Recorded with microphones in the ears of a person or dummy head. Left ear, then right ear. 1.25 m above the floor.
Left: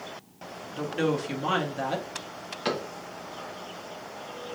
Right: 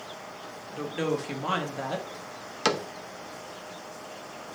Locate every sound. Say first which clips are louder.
0.7 s a woman speaking: left 2 dB; 5° right (ahead or behind), 0.9 m
2.6 s a cupboard door: right 3 dB; 85° right, 0.6 m